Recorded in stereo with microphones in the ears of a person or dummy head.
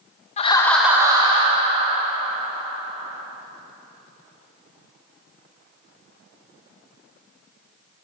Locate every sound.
0.4 s laughter: 35° left (ahead or behind), 0.6 m; by 3.2 s 45° right (ahead or behind), 3 m